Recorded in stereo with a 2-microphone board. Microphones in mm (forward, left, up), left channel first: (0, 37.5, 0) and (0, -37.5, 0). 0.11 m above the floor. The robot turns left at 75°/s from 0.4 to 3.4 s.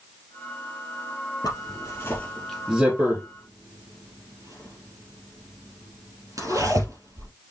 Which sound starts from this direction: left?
A zipper, at 1.4 s.